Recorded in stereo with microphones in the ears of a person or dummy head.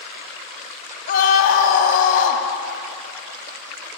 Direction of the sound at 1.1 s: 40° left (ahead or behind).